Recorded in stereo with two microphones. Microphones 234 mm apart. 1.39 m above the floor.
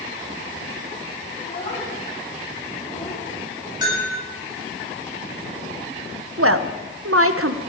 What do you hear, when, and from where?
1.4 s a child speaking: 30° left (ahead or behind), 8.5 m; by 3.2 s 25° left (ahead or behind), 7.5 m
3.8 s a bell: 15° right (ahead or behind), 9 m
6.4 s a woman speaking: 70° right (ahead or behind), 0.9 m